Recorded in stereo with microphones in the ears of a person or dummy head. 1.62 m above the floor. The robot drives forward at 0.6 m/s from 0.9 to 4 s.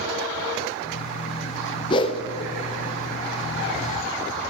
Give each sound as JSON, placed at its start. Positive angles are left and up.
{"t": 1.9, "sound": "a whoosh", "side_deg": 25, "distance_m": 0.8}